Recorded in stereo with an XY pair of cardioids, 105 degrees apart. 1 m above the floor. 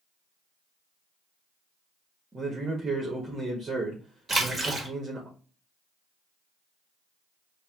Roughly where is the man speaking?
Ahead right.